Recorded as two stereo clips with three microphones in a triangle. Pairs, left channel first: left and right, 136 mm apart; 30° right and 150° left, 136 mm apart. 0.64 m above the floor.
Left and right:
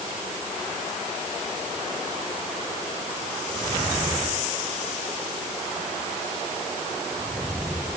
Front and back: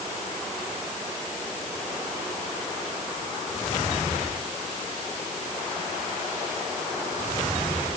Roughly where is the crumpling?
I don't hear crumpling.